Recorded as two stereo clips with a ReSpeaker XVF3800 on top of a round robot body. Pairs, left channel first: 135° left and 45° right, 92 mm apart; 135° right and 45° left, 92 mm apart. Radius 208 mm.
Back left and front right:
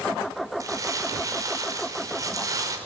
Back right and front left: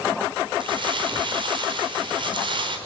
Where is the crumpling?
10° left, 4.5 m.